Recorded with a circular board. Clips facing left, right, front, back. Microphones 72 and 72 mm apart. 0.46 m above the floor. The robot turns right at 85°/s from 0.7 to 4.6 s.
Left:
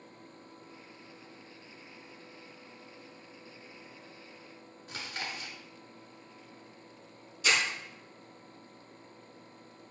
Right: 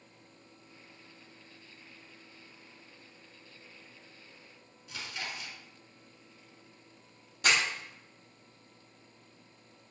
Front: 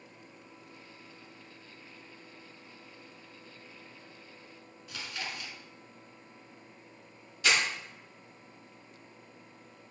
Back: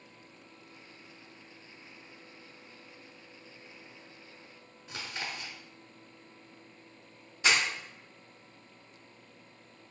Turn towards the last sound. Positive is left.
turn(degrees=-115)